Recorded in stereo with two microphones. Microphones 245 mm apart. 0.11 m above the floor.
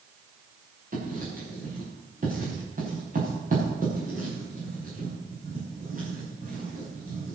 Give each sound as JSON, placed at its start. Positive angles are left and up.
{"t": 0.9, "sound": "writing", "side_deg": -35, "distance_m": 8.5}